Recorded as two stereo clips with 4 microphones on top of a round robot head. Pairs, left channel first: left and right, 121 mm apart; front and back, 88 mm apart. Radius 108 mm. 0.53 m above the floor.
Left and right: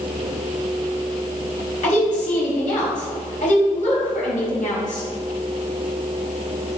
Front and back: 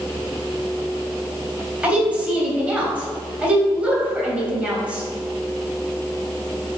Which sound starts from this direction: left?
A woman speaking, at 1.8 s.